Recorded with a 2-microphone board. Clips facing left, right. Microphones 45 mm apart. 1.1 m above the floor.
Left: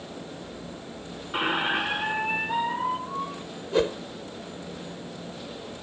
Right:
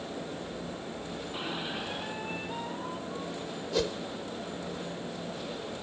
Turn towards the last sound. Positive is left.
turn(degrees=30)  # may be behind; listen again after turning